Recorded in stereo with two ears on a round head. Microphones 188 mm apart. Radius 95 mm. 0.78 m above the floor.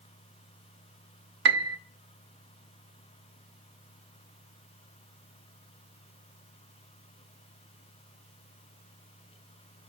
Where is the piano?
55° right (ahead or behind), 1.1 m.